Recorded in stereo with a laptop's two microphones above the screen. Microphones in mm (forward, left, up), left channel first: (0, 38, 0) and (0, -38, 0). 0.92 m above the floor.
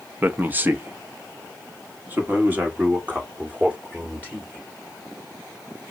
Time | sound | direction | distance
0.2 | a man speaking | 25° right (ahead or behind) | 0.7 m